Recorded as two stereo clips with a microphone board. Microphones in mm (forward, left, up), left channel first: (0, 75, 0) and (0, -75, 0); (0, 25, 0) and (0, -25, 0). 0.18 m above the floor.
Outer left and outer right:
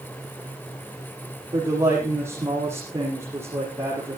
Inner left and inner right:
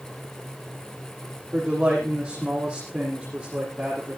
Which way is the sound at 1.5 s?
15° right (ahead or behind).